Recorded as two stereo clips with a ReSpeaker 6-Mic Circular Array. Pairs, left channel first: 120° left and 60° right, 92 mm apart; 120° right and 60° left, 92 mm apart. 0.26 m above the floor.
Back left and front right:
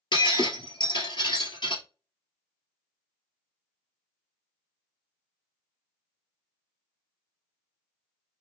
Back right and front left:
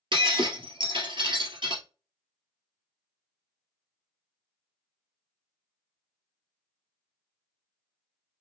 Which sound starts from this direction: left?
Breaking glass, at 0.1 s.